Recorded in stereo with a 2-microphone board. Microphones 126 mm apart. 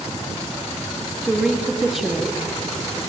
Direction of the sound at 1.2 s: 5° right (ahead or behind).